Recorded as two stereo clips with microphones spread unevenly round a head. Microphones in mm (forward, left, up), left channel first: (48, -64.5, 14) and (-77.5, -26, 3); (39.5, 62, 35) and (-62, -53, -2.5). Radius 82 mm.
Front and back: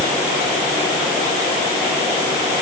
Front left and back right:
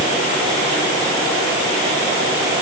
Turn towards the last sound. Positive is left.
No sound to turn to.